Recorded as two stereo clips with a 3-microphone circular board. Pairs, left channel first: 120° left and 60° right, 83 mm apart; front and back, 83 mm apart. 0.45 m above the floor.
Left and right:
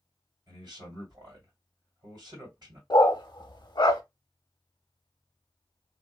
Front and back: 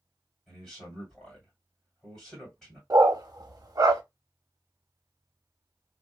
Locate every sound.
0.5 s a man speaking: 80° right, 1.8 m
2.9 s a dog barking: 140° left, 0.5 m